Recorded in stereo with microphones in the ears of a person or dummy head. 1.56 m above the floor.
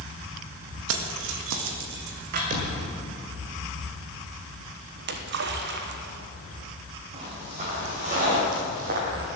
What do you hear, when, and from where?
0.9 s keys jangling: 70° right (ahead or behind), 1.5 m; by 2.4 s 55° right (ahead or behind), 2 m
2.5 s a thud: 35° right (ahead or behind), 1.7 m
5.0 s a splash: 60° right (ahead or behind), 1.1 m
7.1 s footsteps: 30° right (ahead or behind), 3 m; by 9.3 s 45° right (ahead or behind), 2.5 m